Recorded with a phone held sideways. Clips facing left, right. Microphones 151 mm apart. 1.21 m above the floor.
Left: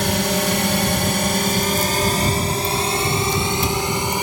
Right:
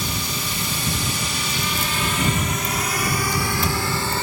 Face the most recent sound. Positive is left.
turn(degrees=15)  # may be behind; listen again after turning